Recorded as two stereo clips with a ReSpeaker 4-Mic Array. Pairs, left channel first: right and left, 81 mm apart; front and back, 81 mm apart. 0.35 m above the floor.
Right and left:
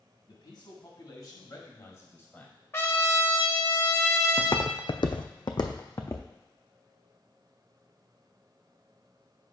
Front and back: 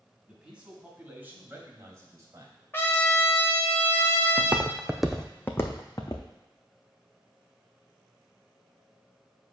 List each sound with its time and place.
0.3 s a man speaking: 100° right, 2 m; by 2.5 s 155° right, 1.6 m
2.7 s a trumpet: 45° right, 0.8 m
4.4 s footsteps: 130° right, 0.9 m; by 6.2 s 40° right, 1.2 m